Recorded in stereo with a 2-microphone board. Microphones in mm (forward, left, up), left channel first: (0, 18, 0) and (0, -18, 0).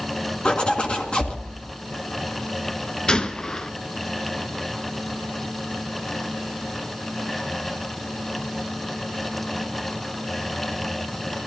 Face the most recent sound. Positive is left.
turn(degrees=20)  # may be behind; listen again after turning